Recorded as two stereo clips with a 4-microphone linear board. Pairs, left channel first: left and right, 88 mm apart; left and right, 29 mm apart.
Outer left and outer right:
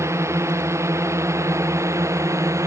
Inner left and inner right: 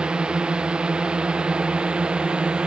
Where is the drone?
30° right (ahead or behind); by 2.7 s 35° right (ahead or behind).